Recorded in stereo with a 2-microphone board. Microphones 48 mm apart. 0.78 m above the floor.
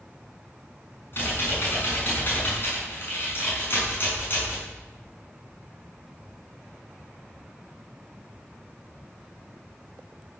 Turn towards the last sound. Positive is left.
turn(degrees=50)  # may be behind; listen again after turning